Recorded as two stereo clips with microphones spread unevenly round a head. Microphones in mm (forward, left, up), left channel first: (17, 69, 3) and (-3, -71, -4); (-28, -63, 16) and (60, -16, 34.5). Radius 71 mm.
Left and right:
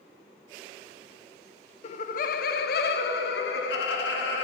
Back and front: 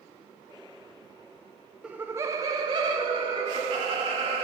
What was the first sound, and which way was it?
Laughter, 100° left.